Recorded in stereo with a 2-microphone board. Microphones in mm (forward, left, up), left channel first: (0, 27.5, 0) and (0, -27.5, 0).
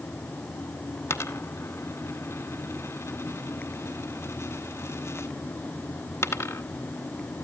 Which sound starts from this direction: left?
A dropped coin, at 1.1 s.